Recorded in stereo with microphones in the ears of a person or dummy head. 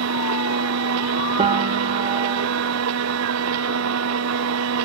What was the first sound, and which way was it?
A machine running, 75° right (ahead or behind).